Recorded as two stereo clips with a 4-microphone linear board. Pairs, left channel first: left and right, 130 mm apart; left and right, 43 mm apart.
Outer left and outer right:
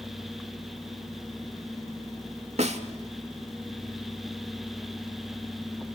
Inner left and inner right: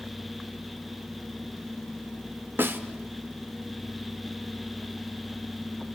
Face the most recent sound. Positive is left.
turn(degrees=-65)  # may be behind; listen again after turning